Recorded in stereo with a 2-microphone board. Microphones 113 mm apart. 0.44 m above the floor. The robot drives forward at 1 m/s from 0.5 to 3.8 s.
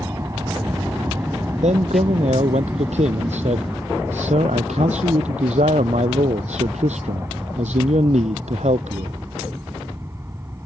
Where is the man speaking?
75° right (ahead or behind); by 9.2 s 80° right.